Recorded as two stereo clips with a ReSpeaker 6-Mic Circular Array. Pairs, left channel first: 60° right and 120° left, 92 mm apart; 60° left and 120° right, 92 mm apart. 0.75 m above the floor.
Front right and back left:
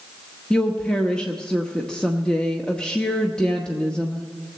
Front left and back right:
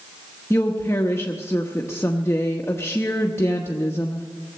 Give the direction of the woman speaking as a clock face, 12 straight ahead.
11 o'clock.